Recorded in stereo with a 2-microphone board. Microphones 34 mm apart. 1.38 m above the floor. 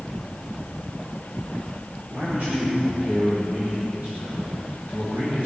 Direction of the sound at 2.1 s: 55° right (ahead or behind).